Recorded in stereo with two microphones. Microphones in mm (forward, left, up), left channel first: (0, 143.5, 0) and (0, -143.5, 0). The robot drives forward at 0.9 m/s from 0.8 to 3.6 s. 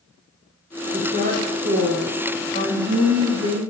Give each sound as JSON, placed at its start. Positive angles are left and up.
{"t": 0.9, "sound": "a woman speaking", "side_deg": -25, "distance_m": 3.0}